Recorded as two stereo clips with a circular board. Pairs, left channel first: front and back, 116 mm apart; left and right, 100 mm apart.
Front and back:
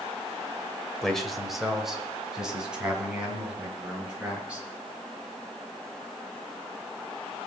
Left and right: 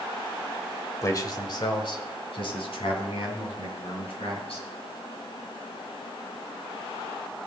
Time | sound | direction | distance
1.0 | a man speaking | 80° left | 1.3 m